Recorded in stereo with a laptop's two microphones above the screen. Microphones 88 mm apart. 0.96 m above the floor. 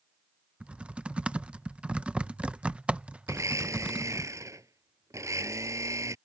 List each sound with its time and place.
0.6 s typing on a keyboard: 15° right (ahead or behind)
3.3 s a blender: 35° right (ahead or behind)